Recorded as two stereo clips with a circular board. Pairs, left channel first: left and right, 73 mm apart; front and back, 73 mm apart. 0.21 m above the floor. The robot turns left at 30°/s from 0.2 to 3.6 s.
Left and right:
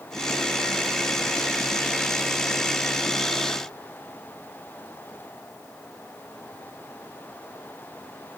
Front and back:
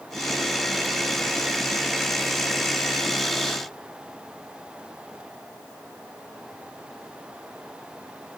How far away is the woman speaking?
I don't hear a woman speaking.